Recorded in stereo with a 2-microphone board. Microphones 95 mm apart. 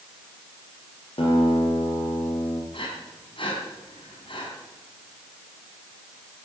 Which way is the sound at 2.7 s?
65° left (ahead or behind).